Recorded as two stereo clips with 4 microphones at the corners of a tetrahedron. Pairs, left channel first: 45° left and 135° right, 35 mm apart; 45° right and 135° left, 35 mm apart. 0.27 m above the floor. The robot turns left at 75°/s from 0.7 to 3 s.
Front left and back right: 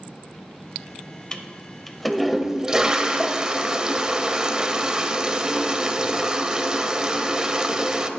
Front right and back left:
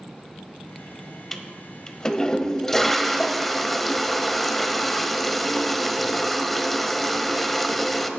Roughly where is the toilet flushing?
Ahead.